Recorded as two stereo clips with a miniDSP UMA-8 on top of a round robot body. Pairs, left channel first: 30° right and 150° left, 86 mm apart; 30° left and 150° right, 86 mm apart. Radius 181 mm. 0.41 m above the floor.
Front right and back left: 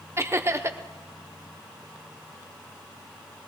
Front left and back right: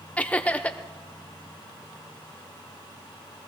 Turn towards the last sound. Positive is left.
turn(degrees=100)